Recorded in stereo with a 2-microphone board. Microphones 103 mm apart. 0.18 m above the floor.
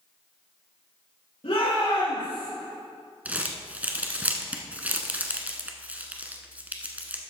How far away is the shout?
About 4 m.